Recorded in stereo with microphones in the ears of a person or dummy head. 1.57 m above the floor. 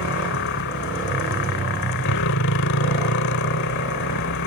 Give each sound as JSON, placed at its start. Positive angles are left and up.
{"t": 0.0, "sound": "a motorcycle", "side_deg": 70}